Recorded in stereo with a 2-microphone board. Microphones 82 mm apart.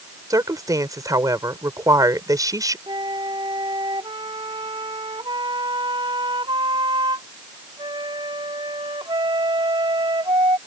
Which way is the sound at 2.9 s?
85° right.